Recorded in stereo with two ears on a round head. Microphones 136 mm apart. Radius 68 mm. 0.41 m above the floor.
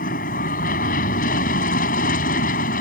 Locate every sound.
0.0 s an aircraft: 60° left (ahead or behind)